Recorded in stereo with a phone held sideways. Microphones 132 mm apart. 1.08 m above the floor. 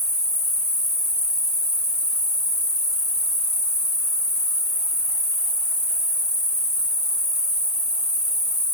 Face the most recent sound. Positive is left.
turn(degrees=60)  # may be behind; listen again after turning